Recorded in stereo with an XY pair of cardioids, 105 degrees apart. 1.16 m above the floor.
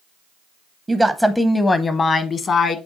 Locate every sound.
0.9 s a woman speaking: 20° right, 0.6 m; by 2.8 s 55° left, 1.1 m